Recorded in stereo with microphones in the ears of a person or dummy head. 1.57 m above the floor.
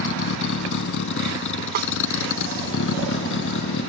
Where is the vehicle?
65° left (ahead or behind).